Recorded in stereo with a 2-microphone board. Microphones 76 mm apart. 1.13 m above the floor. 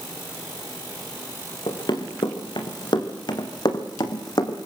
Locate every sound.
1.7 s running footsteps: 75° left (ahead or behind), 4 m; by 4.6 s 60° left (ahead or behind), 2.5 m